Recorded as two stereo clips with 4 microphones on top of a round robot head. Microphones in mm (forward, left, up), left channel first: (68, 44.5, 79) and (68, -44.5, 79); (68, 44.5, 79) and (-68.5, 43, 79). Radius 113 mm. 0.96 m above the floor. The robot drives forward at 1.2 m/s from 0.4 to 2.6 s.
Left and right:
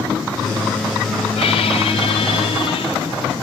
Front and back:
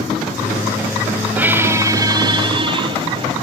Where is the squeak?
100° left, 3 m; by 3.3 s 125° left, 3.5 m.